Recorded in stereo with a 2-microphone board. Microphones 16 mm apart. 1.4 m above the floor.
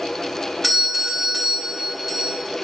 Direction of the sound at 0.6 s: 5° right (ahead or behind).